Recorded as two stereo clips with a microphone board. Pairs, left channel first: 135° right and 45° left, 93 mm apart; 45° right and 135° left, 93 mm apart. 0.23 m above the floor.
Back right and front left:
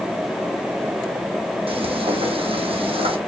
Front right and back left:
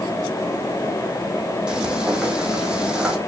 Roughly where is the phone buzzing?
I don't hear a phone buzzing.